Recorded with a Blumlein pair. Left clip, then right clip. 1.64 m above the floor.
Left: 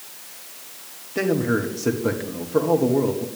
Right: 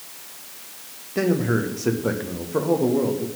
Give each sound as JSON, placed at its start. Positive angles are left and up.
{"t": 1.1, "sound": "a man speaking", "azimuth_deg": 0, "distance_m": 1.3}